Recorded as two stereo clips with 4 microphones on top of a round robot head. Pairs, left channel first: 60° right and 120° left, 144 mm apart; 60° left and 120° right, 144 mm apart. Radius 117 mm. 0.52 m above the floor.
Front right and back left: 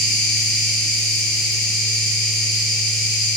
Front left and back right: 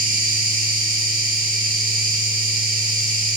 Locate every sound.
0.0 s an insect: 145° right, 6.5 m